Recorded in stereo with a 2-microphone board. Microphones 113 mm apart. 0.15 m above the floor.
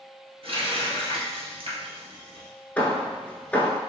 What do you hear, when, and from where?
0.4 s a running tap: 60° right (ahead or behind), 1.6 m
2.8 s hammering: 15° left (ahead or behind), 0.7 m